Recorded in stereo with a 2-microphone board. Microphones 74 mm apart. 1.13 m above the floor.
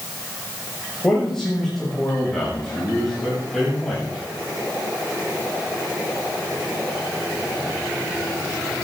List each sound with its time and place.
1.0 s a man speaking: 10° left (ahead or behind), 7 m; by 4.2 s centre (ahead or behind), 8.5 m